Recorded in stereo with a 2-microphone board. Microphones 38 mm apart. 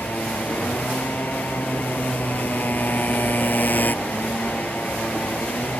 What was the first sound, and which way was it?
A motorcycle, 50° left (ahead or behind).